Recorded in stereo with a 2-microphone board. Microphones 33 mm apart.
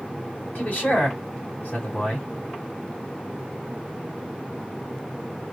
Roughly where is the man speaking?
Left.